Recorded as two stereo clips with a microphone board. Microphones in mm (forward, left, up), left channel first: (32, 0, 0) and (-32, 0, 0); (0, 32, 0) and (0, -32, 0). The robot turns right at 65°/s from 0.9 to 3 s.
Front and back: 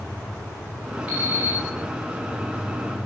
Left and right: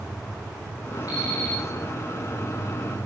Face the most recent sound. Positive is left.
turn(degrees=-115)